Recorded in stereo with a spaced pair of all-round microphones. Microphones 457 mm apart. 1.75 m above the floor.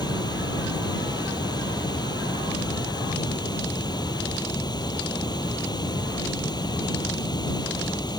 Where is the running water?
10° left (ahead or behind).